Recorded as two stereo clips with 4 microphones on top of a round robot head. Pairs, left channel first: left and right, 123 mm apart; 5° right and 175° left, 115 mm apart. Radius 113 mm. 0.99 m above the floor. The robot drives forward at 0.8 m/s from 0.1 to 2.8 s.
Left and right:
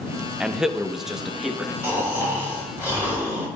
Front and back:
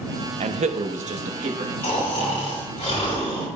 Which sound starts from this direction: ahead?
Snoring, at 1.8 s.